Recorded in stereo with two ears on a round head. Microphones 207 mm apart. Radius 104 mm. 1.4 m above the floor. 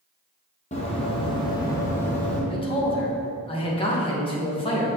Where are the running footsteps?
30° left (ahead or behind), 1.7 m; by 2.4 s 5° left (ahead or behind), 1.8 m.